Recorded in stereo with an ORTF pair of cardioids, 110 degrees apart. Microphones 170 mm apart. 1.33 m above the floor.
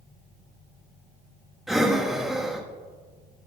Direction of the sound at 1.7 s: Straight ahead.